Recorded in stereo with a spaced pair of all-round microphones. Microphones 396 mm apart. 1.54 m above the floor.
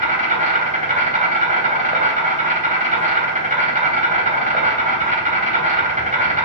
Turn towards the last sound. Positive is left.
turn(degrees=-20)  # may be behind; listen again after turning